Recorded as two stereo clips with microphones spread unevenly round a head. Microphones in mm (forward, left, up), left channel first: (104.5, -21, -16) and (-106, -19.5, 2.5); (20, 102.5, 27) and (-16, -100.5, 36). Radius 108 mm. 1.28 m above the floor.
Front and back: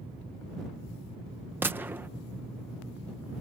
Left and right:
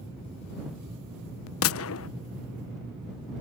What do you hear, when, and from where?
1.6 s a gunshot: 95° left